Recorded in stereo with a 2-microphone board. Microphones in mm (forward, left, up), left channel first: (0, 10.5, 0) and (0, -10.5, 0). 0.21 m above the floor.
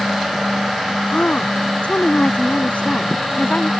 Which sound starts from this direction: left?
A woman speaking, at 1.1 s.